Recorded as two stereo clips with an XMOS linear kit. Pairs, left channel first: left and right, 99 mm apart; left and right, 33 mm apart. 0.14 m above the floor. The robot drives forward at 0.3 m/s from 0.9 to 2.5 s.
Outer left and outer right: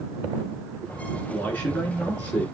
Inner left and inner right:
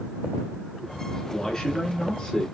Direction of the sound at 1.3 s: 15° left (ahead or behind).